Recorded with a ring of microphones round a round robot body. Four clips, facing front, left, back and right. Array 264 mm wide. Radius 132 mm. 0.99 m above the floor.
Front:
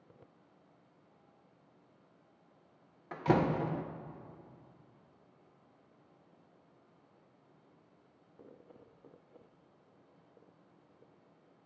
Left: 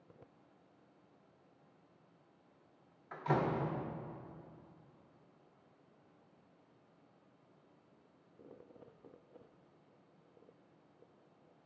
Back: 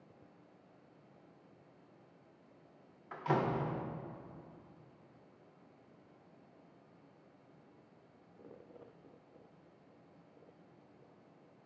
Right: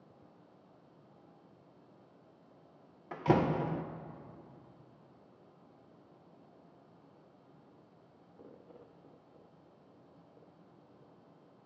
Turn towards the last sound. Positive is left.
turn(degrees=-50)